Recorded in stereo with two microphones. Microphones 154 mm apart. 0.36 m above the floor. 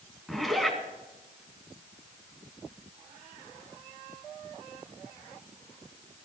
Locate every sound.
0.3 s a zipper: centre (ahead or behind), 3.5 m